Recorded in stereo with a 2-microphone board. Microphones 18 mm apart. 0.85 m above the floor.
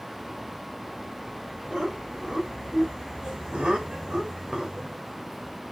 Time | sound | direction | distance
1.7 | laughter | 55° right (ahead or behind) | 4 m